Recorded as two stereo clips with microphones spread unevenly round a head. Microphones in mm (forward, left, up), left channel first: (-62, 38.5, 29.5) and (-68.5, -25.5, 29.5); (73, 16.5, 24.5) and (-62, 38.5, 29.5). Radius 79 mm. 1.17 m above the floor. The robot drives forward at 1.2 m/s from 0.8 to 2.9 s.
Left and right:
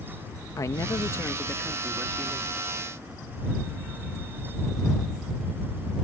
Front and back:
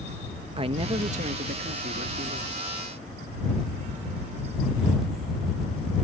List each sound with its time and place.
0.6 s a man speaking: 120° left; by 2.5 s 160° left